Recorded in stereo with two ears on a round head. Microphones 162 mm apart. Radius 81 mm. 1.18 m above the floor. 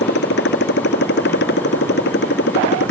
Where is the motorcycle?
60° left (ahead or behind).